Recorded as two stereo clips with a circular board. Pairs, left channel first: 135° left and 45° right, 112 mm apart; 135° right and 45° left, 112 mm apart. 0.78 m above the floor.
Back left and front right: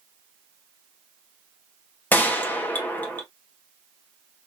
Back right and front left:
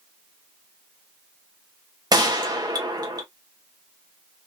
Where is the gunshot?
70° left, 1.0 m.